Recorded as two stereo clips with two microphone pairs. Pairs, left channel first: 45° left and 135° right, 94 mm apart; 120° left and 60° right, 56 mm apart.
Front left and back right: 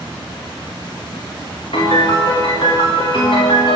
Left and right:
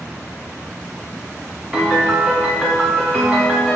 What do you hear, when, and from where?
1.7 s a piano: 20° left, 2 m